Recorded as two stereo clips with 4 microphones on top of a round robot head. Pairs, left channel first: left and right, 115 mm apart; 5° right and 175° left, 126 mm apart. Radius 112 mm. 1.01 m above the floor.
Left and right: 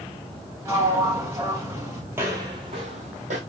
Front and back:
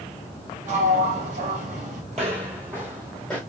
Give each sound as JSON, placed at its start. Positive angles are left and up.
{"t": 0.7, "sound": "a sliding door", "azimuth_deg": -155, "distance_m": 2.5}
{"t": 2.1, "sound": "footsteps", "azimuth_deg": -150, "distance_m": 1.2}